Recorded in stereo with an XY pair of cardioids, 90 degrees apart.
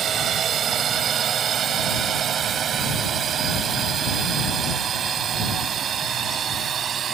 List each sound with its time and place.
0.0 s a drone: 65° right; by 7.1 s 60° right